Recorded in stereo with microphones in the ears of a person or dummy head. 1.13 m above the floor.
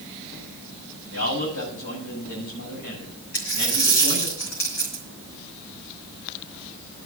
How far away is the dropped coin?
About 3 m.